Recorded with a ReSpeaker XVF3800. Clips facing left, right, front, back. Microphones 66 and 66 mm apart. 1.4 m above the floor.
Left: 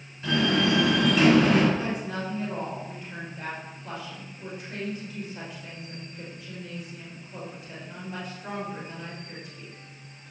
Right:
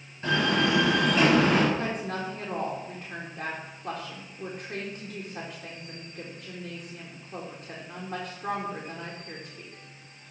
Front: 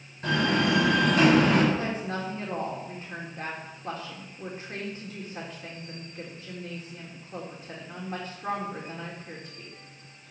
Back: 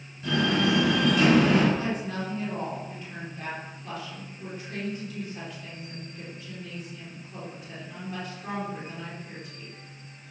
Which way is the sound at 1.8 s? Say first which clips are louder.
Even, even; 55° right.